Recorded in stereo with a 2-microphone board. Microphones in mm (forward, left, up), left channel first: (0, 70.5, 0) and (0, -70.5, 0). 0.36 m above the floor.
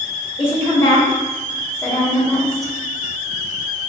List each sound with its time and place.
0.4 s a woman speaking: 45° left (ahead or behind), 1.7 m; by 2.7 s centre (ahead or behind), 1.5 m